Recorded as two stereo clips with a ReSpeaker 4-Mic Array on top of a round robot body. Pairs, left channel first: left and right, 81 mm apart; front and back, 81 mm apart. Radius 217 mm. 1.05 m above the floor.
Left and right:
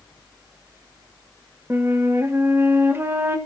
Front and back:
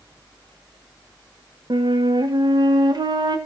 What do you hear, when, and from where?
1.7 s a flute: 150° right, 1.7 m